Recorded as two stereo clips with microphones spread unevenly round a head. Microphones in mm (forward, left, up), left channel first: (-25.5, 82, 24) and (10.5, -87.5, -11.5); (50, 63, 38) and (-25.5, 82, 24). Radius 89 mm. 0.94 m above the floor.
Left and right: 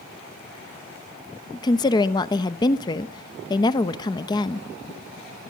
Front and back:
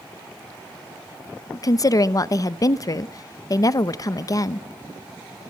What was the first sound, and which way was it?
A woman speaking, 30° left.